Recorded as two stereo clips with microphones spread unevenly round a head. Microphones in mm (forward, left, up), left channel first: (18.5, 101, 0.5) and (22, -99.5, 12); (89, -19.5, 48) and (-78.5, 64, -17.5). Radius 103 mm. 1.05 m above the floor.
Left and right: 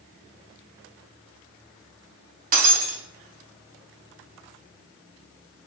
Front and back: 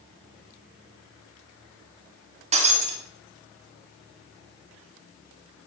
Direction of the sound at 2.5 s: 140° right.